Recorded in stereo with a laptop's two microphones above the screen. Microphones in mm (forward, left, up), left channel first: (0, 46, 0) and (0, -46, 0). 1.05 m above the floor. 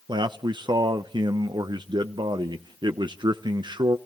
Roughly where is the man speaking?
Right.